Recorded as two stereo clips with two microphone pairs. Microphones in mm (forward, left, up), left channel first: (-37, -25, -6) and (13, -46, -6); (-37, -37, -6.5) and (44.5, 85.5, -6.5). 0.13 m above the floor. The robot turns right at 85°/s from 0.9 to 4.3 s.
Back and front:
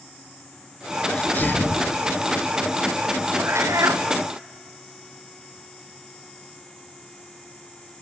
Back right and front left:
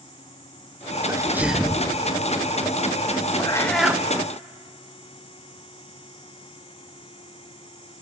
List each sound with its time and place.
1.1 s a sneeze: 100° left, 1.6 m; by 1.9 s 170° left, 1.6 m
3.4 s a cat meowing: 65° right, 1.2 m; by 4.0 s 10° right, 1.2 m